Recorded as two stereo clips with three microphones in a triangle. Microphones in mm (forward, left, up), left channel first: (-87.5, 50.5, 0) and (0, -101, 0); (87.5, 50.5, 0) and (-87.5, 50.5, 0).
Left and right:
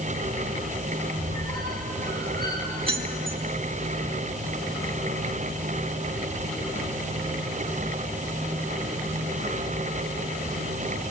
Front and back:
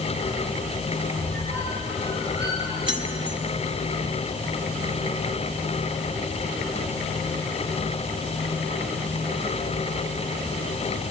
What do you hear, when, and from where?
1.2 s a squeak: 175° right, 7.5 m
2.9 s keys jangling: 120° right, 1.5 m